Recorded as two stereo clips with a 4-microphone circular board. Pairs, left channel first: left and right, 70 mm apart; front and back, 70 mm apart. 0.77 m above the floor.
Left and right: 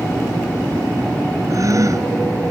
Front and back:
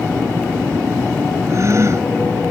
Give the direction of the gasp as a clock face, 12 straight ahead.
4 o'clock.